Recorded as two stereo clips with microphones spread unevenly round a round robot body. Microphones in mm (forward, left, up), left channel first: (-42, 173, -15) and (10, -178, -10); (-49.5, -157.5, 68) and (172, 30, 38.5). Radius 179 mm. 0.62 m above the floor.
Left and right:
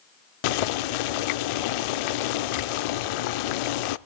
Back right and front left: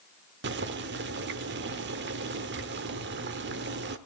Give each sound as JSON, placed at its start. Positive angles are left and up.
{"t": 0.4, "sound": "boiling", "azimuth_deg": 100, "distance_m": 0.6}